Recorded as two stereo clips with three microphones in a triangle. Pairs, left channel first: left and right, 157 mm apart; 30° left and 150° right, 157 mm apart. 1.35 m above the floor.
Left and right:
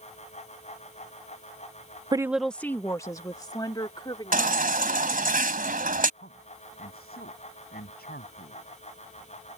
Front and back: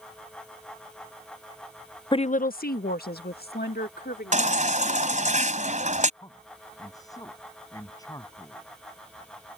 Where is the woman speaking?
30° right; by 5.3 s 30° left.